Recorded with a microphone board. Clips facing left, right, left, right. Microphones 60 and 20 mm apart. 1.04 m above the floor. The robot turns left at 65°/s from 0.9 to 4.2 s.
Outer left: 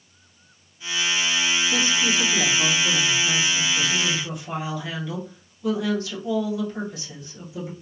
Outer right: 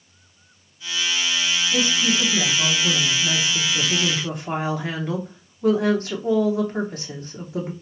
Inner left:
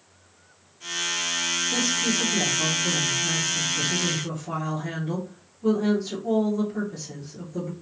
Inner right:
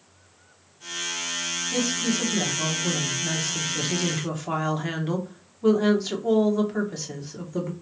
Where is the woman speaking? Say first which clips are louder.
Outer right 1 dB, inner right 1 dB; 40° left, 1.0 m; by 7.7 s 125° right, 1.0 m.